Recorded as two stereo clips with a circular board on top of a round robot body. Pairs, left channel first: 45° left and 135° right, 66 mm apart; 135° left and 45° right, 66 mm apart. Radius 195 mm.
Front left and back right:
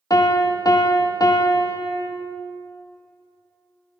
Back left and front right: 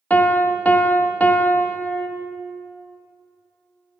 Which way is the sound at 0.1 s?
70° left.